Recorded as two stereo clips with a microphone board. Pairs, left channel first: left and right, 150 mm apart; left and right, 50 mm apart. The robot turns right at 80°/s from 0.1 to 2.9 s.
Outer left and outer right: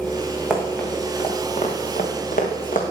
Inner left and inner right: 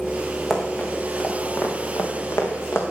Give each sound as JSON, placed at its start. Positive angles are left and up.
{"t": 0.5, "sound": "running footsteps", "side_deg": -5, "distance_m": 3.0}